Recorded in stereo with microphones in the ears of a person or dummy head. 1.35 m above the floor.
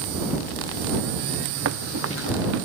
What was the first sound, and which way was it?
Running footsteps, 80° right.